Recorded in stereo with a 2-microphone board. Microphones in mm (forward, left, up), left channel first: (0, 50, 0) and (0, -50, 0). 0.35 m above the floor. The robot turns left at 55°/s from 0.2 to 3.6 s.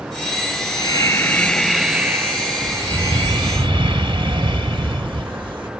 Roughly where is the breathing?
Ahead left.